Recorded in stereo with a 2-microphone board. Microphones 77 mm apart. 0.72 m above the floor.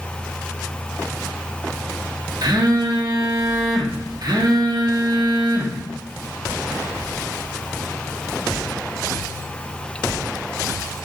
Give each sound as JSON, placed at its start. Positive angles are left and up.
{"t": 2.4, "sound": "a phone buzzing", "side_deg": -60, "distance_m": 0.7}